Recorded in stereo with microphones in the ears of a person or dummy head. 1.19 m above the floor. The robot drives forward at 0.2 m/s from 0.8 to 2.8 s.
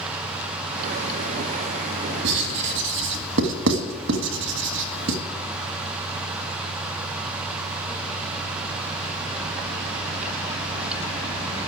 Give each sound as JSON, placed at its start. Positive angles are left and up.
{"t": 2.2, "sound": "writing", "side_deg": -75, "distance_m": 1.6}